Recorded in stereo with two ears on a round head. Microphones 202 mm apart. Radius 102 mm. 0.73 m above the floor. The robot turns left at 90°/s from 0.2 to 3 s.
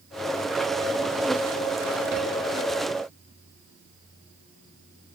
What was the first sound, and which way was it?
Only background noise.